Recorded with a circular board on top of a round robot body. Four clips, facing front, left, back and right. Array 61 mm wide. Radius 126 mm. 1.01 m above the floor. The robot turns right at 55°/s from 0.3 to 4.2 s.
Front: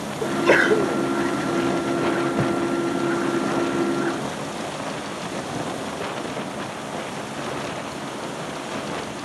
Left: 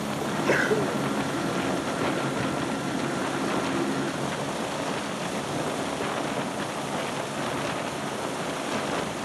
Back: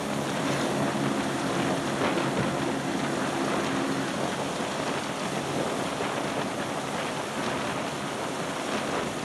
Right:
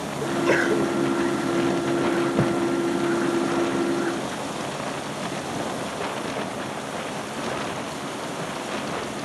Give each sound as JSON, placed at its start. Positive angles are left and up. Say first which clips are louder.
{"t": 0.2, "sound": "a sneeze", "louder": "right 4 dB, front 14 dB", "azimuth_deg": -20}
{"t": 2.4, "sound": "a thud", "louder": "right 6 dB, front 6 dB", "azimuth_deg": -65}